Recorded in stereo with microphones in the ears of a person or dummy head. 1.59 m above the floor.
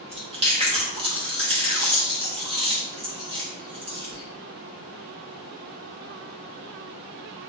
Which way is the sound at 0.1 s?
30° right (ahead or behind).